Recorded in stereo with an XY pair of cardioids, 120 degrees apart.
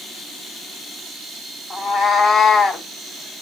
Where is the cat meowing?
25° left, 1.8 m.